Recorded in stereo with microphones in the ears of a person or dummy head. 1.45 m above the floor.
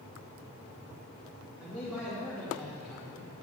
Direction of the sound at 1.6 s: Centre (ahead or behind).